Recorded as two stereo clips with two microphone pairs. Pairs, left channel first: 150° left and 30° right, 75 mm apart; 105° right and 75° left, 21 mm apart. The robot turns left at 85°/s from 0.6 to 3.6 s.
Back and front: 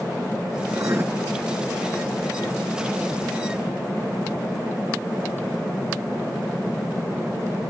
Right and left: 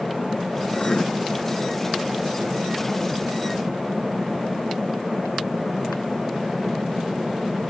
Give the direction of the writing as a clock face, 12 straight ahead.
2 o'clock.